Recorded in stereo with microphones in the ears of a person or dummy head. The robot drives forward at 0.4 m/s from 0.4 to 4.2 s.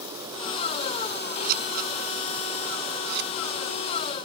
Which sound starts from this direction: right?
Scissors, at 1.4 s.